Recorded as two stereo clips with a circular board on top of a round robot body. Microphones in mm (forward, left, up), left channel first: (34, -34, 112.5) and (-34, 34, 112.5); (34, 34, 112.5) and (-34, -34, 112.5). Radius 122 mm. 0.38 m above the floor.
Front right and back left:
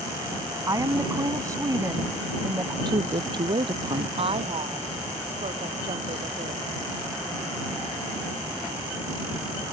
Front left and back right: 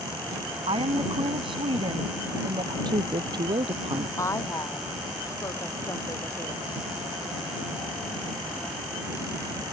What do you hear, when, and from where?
0.7 s a woman speaking: 170° right
2.9 s a woman speaking: straight behind
4.2 s a woman speaking: 105° left